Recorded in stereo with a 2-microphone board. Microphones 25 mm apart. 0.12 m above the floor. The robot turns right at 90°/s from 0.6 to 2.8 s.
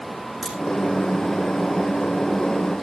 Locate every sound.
0.4 s a crack: 5° left (ahead or behind), 8 m